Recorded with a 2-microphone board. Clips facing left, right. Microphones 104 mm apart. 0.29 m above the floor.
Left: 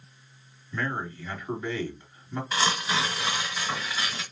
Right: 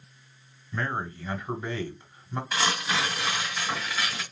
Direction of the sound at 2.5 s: Centre (ahead or behind).